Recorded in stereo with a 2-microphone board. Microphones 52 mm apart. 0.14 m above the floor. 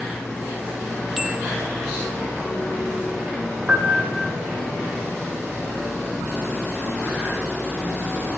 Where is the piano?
25° right (ahead or behind), 5 m.